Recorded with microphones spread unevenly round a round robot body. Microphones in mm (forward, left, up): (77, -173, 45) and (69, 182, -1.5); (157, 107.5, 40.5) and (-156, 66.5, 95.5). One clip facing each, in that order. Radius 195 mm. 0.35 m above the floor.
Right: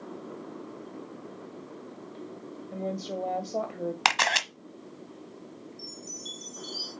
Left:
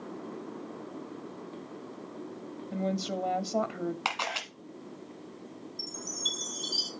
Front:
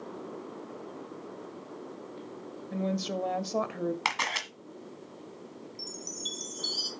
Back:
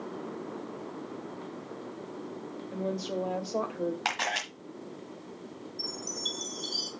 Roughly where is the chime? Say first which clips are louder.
Left 1 dB, back 5 dB; ahead left.